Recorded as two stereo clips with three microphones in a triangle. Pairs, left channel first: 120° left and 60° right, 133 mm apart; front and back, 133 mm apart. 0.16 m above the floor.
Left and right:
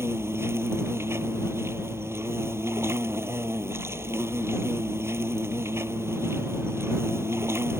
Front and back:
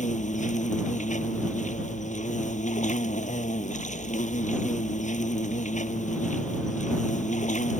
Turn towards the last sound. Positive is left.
turn(degrees=10)